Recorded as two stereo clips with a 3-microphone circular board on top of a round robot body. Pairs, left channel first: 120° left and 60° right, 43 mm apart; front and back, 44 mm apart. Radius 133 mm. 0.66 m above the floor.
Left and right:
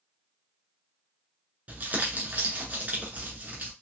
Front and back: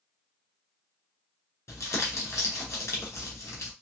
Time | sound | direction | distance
1.7 | crumpling | 5° right | 2 m